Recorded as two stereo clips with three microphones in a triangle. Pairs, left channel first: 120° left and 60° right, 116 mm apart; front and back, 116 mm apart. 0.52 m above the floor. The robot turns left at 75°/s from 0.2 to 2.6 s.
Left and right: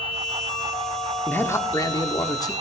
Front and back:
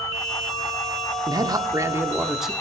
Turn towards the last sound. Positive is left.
turn(degrees=85)